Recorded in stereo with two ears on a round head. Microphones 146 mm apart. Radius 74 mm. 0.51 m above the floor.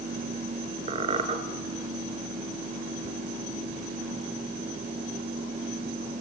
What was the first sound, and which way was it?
A squeak, 35° right (ahead or behind).